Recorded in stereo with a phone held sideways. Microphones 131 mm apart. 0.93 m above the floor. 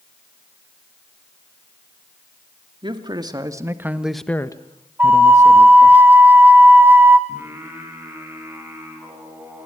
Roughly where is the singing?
Centre.